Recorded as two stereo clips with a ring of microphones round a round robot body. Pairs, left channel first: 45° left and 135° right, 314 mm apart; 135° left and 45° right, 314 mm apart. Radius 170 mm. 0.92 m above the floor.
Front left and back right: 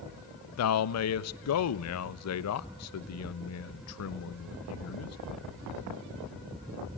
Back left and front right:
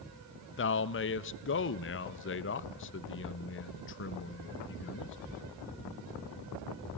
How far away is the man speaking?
About 0.7 m.